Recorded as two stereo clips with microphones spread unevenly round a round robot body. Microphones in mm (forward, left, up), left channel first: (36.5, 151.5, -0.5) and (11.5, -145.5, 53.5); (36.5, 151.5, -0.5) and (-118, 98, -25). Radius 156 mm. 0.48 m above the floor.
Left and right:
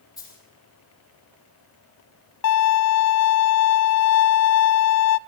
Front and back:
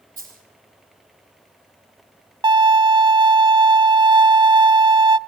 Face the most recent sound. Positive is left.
turn(degrees=130)